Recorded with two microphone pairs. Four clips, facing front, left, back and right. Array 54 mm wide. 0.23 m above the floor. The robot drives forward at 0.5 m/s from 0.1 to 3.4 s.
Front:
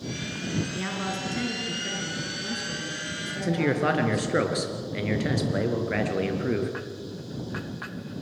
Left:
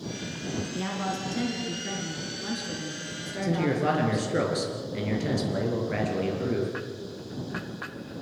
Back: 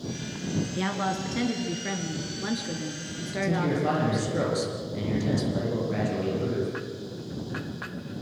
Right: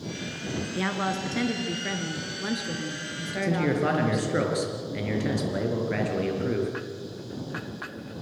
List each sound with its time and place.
0.8 s a woman speaking: 95° right, 2.5 m; by 4.4 s 125° right, 3 m
3.4 s a man speaking: 15° right, 4 m